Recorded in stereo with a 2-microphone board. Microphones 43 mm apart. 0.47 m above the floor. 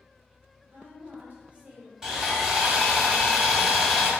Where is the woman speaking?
45° right (ahead or behind), 1.2 m; by 1.9 s 20° right (ahead or behind), 1.1 m.